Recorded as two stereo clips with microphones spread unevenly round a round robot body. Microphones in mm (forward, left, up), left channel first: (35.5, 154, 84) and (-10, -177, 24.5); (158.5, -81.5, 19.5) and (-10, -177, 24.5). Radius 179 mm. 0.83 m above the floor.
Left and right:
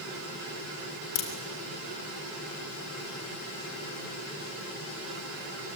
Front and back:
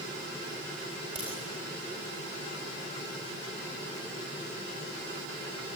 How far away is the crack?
About 4 m.